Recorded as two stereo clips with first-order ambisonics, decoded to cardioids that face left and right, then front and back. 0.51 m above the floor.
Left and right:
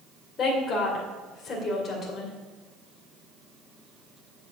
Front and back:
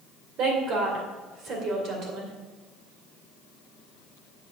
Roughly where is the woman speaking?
Behind left.